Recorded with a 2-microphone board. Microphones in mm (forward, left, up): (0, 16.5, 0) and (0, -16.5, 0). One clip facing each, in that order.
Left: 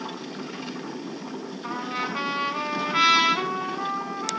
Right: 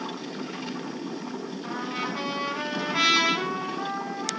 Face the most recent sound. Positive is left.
turn(degrees=30)  # may be behind; listen again after turning